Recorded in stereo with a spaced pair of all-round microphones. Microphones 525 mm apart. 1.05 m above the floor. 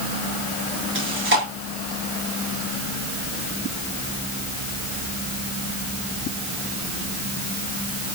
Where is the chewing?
25° right (ahead or behind), 9 m.